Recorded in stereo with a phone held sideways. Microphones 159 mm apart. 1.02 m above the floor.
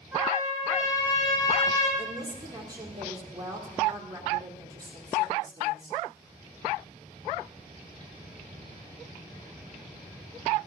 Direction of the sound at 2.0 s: 25° right (ahead or behind).